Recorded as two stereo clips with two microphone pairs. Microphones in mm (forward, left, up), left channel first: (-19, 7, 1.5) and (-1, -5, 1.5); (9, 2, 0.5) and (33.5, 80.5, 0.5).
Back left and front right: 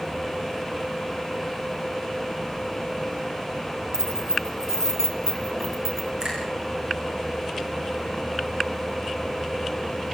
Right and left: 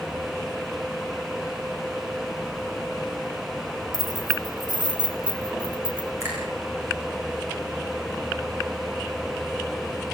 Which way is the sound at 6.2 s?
20° left.